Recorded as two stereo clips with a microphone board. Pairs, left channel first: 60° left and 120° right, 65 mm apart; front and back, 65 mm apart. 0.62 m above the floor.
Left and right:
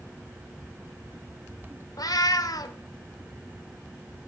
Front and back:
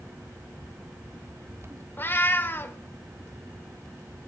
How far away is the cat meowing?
About 0.7 m.